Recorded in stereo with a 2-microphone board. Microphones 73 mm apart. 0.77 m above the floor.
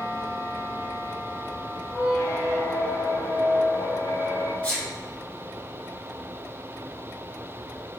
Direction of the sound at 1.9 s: 45° left (ahead or behind).